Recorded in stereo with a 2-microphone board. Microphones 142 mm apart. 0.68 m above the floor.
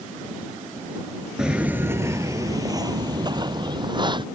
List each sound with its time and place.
1.4 s footsteps: 5° right (ahead or behind); by 4.2 s 35° right (ahead or behind)